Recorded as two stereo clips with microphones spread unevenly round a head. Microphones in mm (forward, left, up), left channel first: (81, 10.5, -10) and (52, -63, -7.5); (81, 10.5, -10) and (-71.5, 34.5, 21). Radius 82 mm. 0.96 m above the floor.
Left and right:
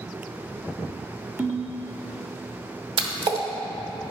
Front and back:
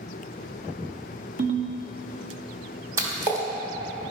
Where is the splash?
115° right, 1.1 m.